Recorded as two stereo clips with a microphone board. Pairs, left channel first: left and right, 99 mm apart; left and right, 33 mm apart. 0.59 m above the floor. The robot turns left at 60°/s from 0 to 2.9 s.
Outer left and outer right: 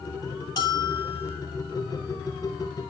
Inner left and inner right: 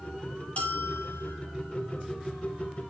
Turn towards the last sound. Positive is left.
turn(degrees=-5)